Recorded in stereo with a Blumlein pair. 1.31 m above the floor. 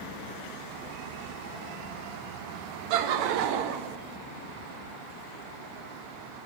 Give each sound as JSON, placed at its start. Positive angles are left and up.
{"t": 2.9, "sound": "laughter", "azimuth_deg": -45, "distance_m": 1.1}